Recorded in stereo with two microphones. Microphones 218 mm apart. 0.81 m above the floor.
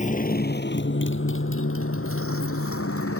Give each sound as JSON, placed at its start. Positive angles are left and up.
{"t": 0.0, "sound": "a motorcycle", "side_deg": 35}